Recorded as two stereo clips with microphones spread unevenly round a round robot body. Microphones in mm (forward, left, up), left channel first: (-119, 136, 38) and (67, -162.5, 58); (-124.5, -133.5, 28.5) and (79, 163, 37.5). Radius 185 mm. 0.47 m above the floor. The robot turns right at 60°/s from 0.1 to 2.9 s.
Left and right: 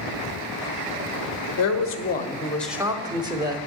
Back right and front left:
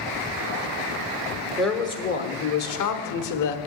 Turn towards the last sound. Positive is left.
turn(degrees=-135)